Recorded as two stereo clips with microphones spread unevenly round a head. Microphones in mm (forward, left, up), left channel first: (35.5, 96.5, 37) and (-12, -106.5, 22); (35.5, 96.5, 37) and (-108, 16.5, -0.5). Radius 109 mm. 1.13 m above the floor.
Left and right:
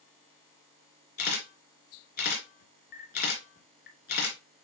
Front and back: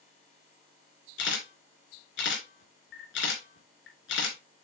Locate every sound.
1.2 s a camera shutter: 30° left, 2.5 m